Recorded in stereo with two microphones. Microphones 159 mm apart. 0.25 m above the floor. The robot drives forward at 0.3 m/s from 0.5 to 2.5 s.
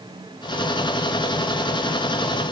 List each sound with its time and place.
Only background noise.